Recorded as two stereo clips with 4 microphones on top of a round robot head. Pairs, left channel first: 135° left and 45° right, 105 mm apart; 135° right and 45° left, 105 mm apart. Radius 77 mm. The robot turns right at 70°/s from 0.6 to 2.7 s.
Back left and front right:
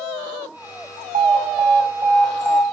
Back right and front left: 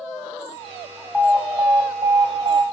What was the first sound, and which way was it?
An alarm, 50° right.